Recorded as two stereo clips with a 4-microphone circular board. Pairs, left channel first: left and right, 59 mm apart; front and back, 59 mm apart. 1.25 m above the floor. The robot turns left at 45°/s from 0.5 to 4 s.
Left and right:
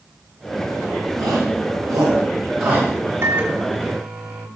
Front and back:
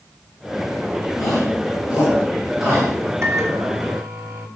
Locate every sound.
1.2 s a shout: 55° right, 7 m; by 2.9 s 135° right, 7 m
3.2 s a microwave: 140° right, 2.5 m; by 4.5 s 175° right, 2.5 m